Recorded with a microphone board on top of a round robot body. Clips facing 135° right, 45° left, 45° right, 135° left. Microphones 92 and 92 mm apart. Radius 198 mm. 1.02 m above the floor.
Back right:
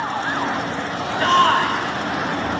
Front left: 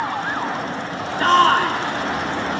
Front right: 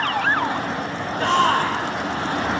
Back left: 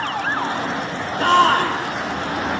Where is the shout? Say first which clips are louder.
Front left 1 dB, back left 4 dB; 100° left, 3.5 m.